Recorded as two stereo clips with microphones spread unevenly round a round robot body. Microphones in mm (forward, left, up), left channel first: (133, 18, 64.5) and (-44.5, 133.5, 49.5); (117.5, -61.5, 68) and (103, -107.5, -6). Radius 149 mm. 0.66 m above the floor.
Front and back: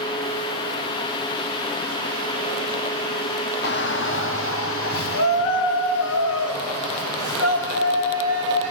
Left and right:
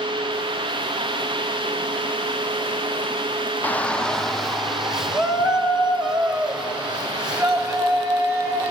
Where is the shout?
55° right, 0.9 m.